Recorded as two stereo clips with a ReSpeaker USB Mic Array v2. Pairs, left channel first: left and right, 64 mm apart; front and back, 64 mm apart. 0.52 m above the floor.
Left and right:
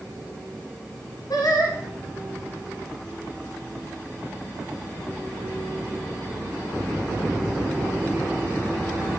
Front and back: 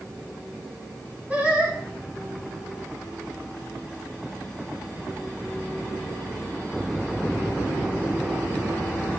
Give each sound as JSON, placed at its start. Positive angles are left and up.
{"t": 1.3, "sound": "singing", "azimuth_deg": 110, "distance_m": 6.5}